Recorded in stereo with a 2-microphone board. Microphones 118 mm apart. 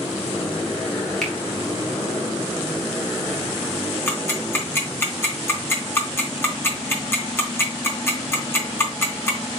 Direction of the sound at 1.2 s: 5° left (ahead or behind).